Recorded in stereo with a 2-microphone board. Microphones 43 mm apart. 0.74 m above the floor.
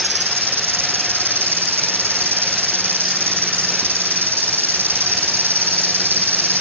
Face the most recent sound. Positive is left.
turn(degrees=-65)  # may be behind; listen again after turning